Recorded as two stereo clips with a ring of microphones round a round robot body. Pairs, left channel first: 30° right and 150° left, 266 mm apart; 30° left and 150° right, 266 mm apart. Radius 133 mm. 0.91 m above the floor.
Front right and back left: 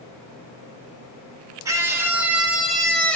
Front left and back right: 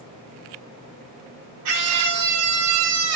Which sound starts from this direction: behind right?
A scream, at 1.6 s.